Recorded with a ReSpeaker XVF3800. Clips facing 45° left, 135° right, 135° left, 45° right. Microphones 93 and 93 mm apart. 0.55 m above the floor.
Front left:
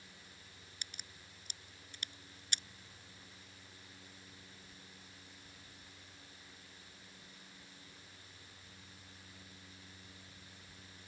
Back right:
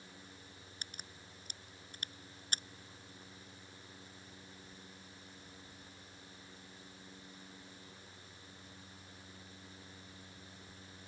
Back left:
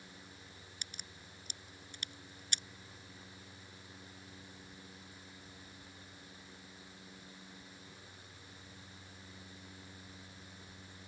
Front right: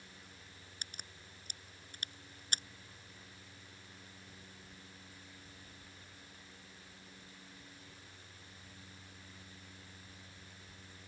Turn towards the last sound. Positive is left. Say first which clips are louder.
# back right 2 dB, front right 2 dB
turn(degrees=-90)